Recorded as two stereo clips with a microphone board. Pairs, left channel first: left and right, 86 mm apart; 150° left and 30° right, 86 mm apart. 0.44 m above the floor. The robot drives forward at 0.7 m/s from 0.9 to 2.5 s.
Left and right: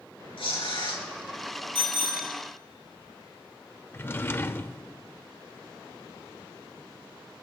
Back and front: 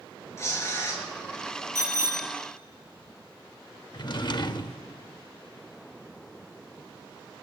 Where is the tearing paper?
95° left, 3.5 m.